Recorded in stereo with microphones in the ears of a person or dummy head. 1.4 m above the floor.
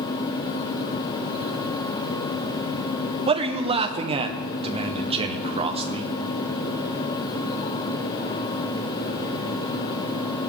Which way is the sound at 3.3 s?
20° right (ahead or behind).